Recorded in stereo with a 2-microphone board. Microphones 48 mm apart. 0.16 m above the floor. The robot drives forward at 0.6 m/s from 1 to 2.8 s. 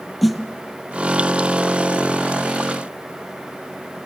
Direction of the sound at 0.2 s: Centre (ahead or behind).